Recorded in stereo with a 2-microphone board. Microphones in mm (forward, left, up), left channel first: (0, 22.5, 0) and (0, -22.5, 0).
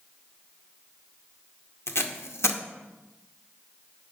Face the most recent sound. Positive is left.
turn(degrees=80)